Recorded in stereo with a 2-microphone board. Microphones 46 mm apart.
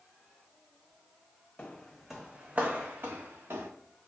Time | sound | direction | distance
1.6 | footsteps | 25° left (ahead or behind) | 0.6 m